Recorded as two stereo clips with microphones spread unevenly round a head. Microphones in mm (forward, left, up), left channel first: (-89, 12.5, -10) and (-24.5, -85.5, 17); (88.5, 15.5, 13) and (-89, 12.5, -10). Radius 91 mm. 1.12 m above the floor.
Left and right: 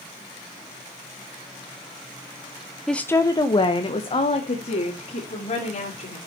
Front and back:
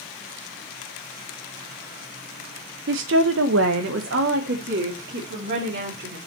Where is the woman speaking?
150° right, 0.7 m; by 6.2 s 150° left, 3.5 m.